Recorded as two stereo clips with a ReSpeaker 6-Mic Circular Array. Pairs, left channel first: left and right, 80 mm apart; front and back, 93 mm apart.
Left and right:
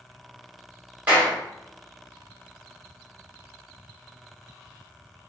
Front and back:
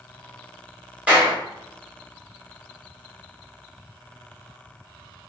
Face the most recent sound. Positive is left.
turn(degrees=-130)